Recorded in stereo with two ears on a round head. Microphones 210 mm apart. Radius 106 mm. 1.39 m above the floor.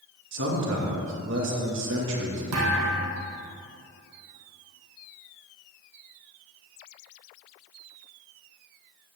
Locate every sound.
0.3 s a man speaking: 55° right (ahead or behind), 2.5 m
2.5 s a thud: 70° right (ahead or behind), 3.5 m